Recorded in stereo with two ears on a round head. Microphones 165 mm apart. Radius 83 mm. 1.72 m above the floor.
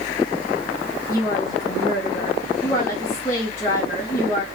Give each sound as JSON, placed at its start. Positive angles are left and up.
{"t": 1.1, "sound": "a woman speaking", "side_deg": 15, "distance_m": 3.0}